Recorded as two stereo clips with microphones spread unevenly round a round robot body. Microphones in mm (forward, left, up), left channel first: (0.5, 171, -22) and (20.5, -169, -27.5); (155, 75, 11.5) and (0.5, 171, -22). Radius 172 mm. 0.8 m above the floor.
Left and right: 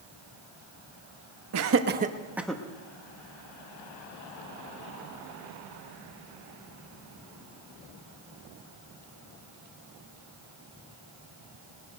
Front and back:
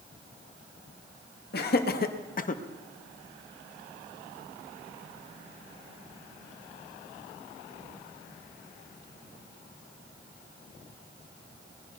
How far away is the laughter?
About 1.2 m.